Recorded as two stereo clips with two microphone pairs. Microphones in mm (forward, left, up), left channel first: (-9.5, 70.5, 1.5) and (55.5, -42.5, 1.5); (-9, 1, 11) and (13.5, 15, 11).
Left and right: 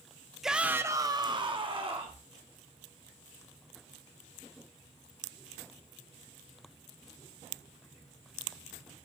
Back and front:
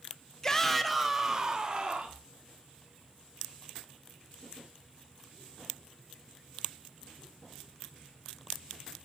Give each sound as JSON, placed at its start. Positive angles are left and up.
{"t": 0.4, "sound": "a shout", "azimuth_deg": -145, "distance_m": 0.6}